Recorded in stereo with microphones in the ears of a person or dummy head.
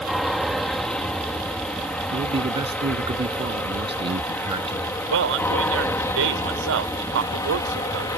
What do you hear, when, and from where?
0.0 s an aircraft: centre (ahead or behind); by 8.2 s 15° left (ahead or behind)
2.1 s a man speaking: 30° right (ahead or behind)
5.1 s a man speaking: 75° right (ahead or behind)